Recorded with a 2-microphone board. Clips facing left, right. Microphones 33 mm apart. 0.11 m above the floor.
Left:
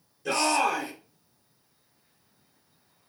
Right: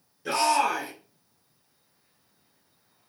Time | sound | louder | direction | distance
0.2 | a shout | right 1 dB | 15° right (ahead or behind) | 1.5 m